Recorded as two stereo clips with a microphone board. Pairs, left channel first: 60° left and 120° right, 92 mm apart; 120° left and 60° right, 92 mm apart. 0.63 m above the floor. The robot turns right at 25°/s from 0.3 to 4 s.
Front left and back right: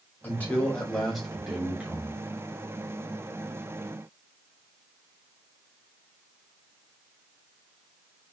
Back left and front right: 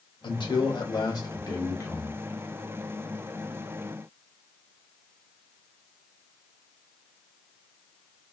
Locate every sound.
0.2 s a man speaking: 125° left, 1.0 m; by 2.2 s 175° left, 1.0 m